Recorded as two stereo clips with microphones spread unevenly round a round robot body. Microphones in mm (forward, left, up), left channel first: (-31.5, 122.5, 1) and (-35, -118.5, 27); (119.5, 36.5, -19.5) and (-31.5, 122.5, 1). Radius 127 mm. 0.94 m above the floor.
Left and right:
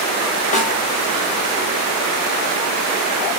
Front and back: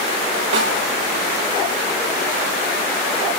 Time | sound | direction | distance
0.5 | a snare drum | 150° left | 4 m